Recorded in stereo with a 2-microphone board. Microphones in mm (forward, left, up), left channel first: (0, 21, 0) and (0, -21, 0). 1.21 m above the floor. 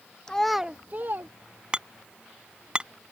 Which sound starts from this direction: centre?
A child speaking, at 0.3 s.